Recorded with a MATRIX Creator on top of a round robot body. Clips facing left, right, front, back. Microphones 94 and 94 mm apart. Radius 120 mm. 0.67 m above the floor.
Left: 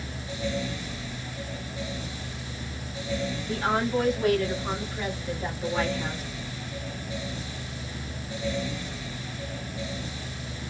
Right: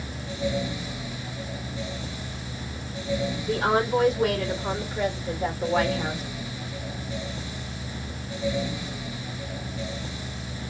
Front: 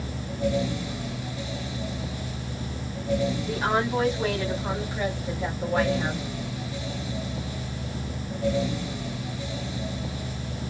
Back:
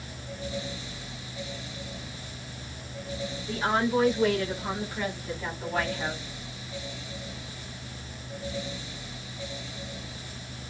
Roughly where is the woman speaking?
Ahead right.